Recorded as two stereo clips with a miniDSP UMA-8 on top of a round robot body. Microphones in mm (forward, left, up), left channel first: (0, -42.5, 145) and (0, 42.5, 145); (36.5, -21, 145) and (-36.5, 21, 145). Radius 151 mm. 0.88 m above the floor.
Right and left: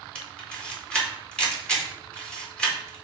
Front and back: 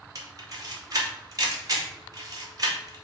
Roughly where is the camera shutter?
Behind.